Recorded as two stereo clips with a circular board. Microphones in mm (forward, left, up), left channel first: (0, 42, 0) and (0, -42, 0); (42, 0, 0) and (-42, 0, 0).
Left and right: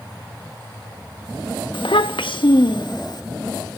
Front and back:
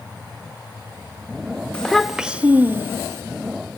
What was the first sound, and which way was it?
A child speaking, 80° left.